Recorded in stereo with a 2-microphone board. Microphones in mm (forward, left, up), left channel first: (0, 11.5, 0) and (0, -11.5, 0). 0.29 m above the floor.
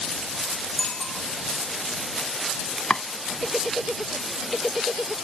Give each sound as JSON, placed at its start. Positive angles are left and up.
{"t": 0.8, "sound": "a bicycle bell", "side_deg": 35}
{"t": 2.9, "sound": "chopping", "side_deg": 45}